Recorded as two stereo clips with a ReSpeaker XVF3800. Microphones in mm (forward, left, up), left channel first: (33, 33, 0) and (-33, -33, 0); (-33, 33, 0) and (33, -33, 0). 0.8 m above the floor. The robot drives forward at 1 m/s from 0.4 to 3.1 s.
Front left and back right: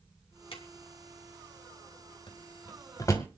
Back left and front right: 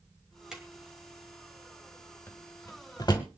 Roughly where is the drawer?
Ahead left.